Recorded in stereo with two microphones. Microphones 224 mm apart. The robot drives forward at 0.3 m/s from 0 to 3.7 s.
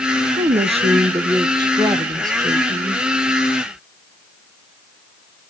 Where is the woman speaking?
30° right (ahead or behind), 0.6 m; by 3.0 s 15° right (ahead or behind), 1.3 m.